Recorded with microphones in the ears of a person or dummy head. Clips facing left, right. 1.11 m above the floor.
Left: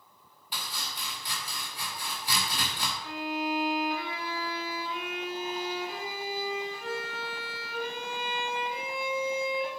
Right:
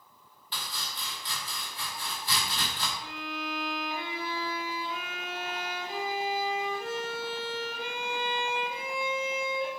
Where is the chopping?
15° left (ahead or behind), 2.5 m.